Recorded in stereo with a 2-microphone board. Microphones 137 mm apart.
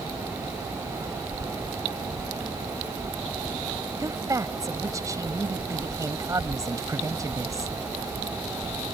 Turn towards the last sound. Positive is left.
turn(degrees=-25)  # may be behind; listen again after turning